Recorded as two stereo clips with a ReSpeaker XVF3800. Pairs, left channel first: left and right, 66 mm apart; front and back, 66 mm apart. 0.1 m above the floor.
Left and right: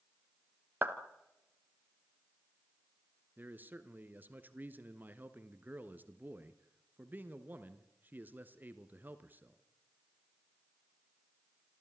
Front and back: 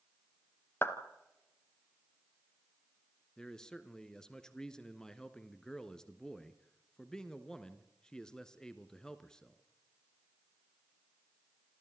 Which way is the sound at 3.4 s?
70° right.